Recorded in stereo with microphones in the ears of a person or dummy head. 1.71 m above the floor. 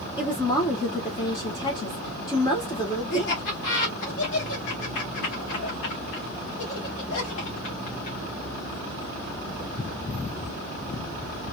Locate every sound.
0.2 s a woman speaking: 25° left (ahead or behind), 1.0 m
3.1 s laughter: 45° left (ahead or behind), 0.9 m